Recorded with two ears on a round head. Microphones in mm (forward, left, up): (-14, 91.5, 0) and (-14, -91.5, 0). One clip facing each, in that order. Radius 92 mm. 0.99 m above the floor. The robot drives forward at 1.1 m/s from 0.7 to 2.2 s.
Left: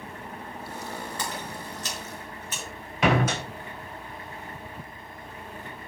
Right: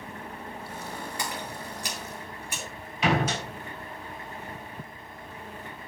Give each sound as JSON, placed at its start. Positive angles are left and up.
{"t": 1.2, "sound": "a splash", "side_deg": -10, "distance_m": 7.5}
{"t": 3.0, "sound": "a door slam", "side_deg": 45, "distance_m": 3.5}